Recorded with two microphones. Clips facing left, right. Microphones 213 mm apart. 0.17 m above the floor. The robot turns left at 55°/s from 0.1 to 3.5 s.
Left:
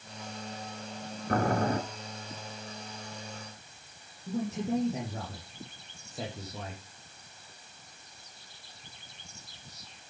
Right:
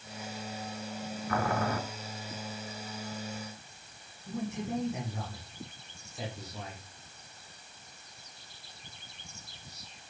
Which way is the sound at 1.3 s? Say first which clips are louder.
Left 4 dB; 45° left (ahead or behind).